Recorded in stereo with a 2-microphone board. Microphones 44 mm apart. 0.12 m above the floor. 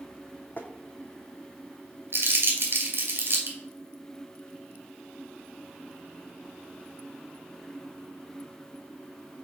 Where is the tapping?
40° left (ahead or behind), 0.9 m.